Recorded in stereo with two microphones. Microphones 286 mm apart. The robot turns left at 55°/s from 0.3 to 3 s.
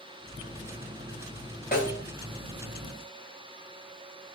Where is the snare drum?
35° left (ahead or behind), 2 m; by 2.0 s 15° left (ahead or behind), 2 m.